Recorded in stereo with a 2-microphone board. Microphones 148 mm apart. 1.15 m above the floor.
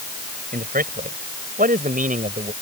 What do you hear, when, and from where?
0.5 s a man speaking: 80° right; by 2.5 s 60° right (ahead or behind)